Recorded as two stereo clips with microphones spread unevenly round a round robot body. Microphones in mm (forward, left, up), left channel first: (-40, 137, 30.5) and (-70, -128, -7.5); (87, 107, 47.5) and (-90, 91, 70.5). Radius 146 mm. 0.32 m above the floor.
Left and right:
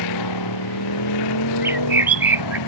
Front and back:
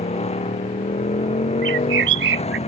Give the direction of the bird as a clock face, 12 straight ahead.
6 o'clock.